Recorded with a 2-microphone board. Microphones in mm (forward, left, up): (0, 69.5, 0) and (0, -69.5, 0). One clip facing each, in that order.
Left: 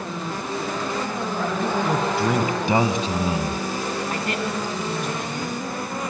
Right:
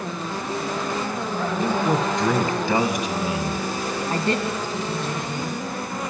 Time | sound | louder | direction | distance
1.6 | a man speaking | right 2 dB | 10° right (ahead or behind) | 1.3 m
4.1 | a woman speaking | right 2 dB | 30° right (ahead or behind) | 1.6 m